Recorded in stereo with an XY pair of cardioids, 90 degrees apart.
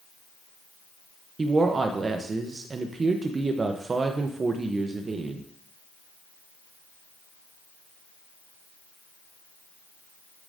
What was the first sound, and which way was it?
A woman speaking, 40° right.